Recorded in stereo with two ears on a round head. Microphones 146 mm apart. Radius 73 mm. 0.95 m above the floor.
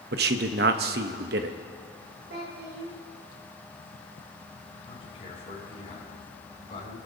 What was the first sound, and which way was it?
A man speaking, 65° right (ahead or behind).